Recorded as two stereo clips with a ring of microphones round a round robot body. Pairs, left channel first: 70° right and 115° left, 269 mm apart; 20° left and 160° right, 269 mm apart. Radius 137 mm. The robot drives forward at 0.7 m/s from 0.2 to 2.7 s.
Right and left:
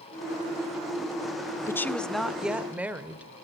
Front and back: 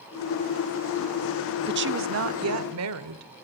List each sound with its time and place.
1.7 s a woman speaking: 140° right, 0.9 m; by 3.3 s 165° right, 1.4 m